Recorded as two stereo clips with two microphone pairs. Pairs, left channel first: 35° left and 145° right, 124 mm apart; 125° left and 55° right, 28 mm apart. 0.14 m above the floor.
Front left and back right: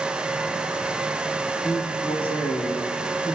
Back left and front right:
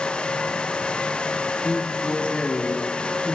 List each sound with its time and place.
1.6 s a man speaking: 80° left, 7.5 m